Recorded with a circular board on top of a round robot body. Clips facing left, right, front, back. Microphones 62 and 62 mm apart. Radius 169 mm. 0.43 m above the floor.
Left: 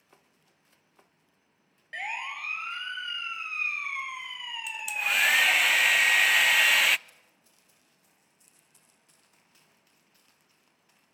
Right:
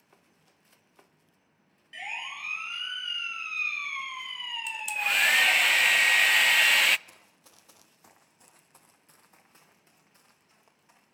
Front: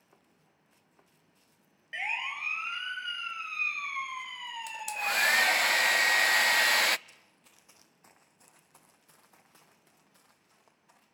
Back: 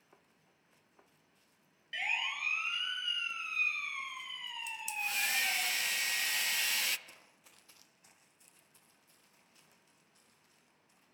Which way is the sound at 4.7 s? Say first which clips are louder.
Even, front 7 dB; 5° left.